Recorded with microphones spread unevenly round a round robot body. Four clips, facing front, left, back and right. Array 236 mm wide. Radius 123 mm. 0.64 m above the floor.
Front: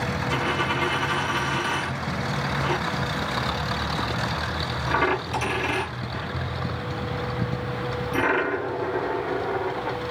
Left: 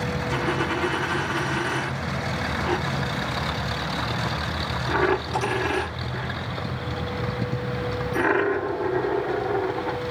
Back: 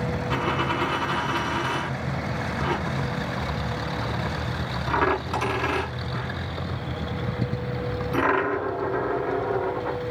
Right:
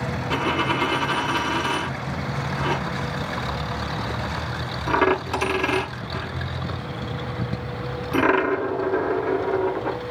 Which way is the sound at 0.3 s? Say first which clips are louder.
Right 3 dB, even; 95° right.